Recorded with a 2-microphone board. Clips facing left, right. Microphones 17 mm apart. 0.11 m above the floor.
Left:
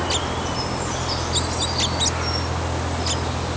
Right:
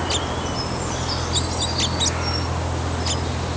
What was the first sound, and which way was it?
Only background noise.